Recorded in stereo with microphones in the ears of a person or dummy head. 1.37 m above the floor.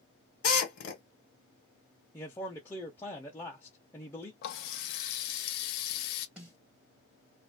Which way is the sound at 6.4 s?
5° right (ahead or behind).